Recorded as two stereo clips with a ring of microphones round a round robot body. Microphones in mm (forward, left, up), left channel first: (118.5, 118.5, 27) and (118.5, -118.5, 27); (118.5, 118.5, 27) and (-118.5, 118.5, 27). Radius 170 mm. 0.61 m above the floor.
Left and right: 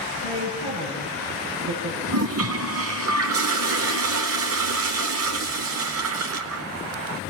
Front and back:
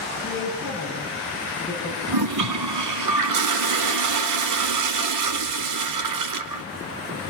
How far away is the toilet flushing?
About 0.5 m.